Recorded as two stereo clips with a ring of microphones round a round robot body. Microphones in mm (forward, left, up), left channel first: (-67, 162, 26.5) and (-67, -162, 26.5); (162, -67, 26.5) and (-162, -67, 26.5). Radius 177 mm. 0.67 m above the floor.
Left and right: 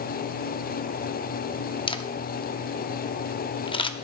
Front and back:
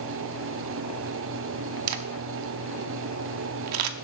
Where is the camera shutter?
165° left, 0.9 m.